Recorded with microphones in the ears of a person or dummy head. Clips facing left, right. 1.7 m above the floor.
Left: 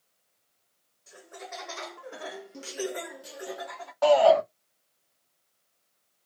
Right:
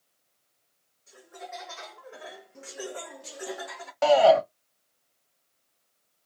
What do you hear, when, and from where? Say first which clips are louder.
1.1 s laughter: right 1 dB; 65° left (ahead or behind), 1.3 m; by 3.9 s 15° right (ahead or behind), 0.9 m
4.0 s a shout: right 1 dB; 35° right (ahead or behind), 0.6 m